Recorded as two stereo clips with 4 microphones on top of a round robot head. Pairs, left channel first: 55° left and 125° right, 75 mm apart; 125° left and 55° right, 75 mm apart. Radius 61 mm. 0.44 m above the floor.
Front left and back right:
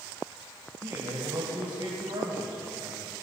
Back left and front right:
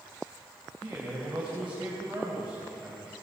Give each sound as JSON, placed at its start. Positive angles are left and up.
{"t": 0.8, "sound": "a man speaking", "azimuth_deg": -125, "distance_m": 2.5}